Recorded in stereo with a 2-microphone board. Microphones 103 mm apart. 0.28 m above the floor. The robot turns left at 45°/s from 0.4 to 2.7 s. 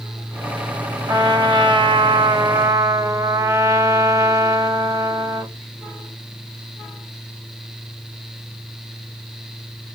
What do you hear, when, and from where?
1.1 s a trumpet: 55° right, 0.8 m; by 5.5 s 130° right, 0.8 m